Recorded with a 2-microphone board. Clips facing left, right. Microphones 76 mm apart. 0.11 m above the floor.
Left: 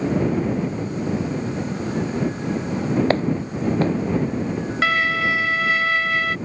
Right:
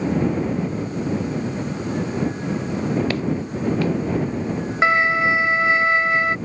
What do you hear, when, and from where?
3.1 s footsteps: 35° left (ahead or behind)
4.8 s a violin: 25° right (ahead or behind)